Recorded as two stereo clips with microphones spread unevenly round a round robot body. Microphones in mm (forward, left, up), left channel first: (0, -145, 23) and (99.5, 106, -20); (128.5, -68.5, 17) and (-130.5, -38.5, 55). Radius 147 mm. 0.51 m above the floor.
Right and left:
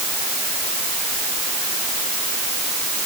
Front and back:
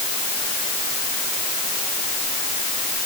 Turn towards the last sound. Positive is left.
No sound to turn to.